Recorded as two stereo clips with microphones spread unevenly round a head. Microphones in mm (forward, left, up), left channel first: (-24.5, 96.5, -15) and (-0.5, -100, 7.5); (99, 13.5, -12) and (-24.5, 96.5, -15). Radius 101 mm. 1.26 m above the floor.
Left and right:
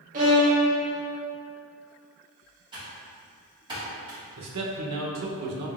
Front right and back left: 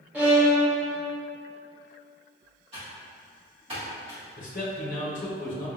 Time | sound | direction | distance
0.1 | a violin | 130° right | 1.2 m
2.7 | typing on a keyboard | 150° right | 1.7 m
4.4 | a man speaking | 85° right | 0.8 m